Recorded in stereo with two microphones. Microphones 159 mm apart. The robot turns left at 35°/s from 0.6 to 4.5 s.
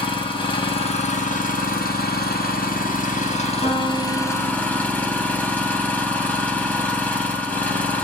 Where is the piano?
65° left, 2 m; by 4.9 s 35° left, 2 m.